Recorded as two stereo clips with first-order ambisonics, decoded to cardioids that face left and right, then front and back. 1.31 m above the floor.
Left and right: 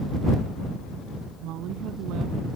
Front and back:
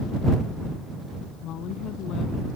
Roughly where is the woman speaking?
Ahead right.